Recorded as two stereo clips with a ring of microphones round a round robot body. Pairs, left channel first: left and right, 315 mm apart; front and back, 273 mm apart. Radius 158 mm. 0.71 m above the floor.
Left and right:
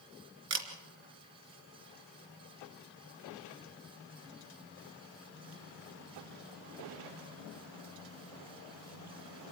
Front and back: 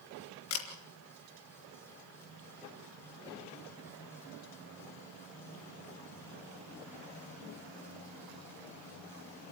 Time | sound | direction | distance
0.5 | a camera shutter | 45° right | 2.5 m